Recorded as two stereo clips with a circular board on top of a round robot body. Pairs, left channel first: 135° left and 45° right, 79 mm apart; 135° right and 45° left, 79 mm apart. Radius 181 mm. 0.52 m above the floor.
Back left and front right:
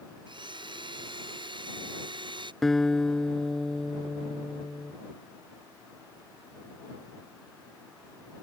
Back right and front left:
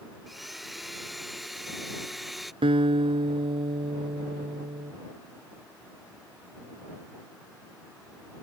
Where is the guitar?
45° left.